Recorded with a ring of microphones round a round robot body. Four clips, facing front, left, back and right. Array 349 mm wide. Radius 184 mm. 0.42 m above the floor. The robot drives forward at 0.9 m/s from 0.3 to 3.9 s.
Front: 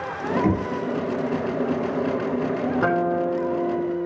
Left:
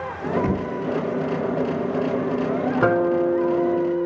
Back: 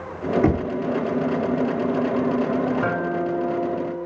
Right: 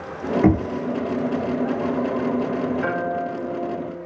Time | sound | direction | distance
0.4 | knocking | 105° right | 4 m
2.8 | a guitar | 70° left | 5.5 m